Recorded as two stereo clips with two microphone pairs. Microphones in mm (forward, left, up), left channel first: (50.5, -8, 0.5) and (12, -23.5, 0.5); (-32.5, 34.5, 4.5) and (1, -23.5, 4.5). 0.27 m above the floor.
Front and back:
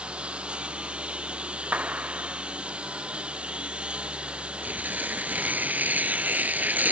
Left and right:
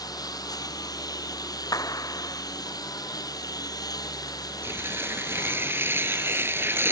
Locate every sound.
0.0 s a lawn mower: 140° left
1.7 s a clap: 150° left
4.6 s tearing paper: 115° right